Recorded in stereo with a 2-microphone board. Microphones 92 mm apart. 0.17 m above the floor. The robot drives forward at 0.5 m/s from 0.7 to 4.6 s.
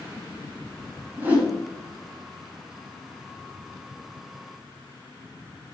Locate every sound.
1.2 s a whoosh: 20° right (ahead or behind), 1.2 m; by 1.6 s 15° right (ahead or behind), 1.4 m